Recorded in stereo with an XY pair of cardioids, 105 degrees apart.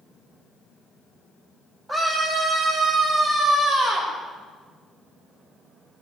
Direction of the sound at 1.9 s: 20° right.